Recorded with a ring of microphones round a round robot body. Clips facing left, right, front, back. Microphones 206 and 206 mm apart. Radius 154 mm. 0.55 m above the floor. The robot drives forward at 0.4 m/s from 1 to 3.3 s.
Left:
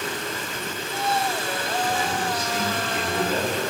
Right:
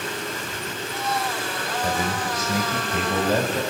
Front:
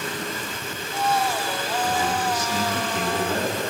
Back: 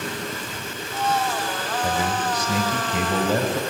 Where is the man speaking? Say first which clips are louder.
Right 2 dB, even; 140° right, 2.5 m; by 3.6 s 145° right, 3 m.